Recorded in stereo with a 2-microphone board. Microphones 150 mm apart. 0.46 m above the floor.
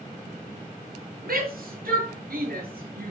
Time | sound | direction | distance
1.2 | a shout | 80° right | 9 m